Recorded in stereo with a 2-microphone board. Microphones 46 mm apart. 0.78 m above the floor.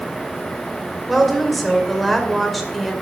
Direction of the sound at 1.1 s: Centre (ahead or behind).